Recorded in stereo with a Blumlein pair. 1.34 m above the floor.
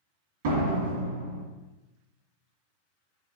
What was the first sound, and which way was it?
A door slam, 55° right.